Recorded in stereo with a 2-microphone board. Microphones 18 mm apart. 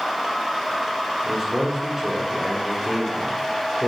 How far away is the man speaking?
About 3.5 m.